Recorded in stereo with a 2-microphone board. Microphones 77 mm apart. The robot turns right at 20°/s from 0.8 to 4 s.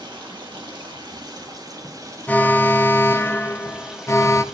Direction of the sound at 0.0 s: 70° right.